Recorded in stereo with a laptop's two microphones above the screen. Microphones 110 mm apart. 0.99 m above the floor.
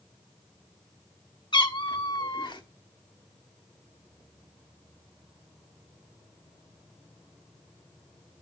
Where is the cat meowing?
45° left (ahead or behind), 1.2 m.